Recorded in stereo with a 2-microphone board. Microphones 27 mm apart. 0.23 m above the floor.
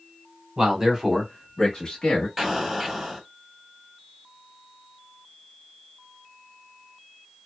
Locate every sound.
0.6 s a man speaking: 30° right (ahead or behind), 1.2 m; by 2.3 s 35° left (ahead or behind), 1.3 m
2.4 s an explosion: 10° right (ahead or behind), 0.8 m